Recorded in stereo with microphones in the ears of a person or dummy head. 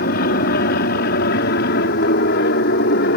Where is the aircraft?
55° left (ahead or behind); by 3.2 s 65° left (ahead or behind).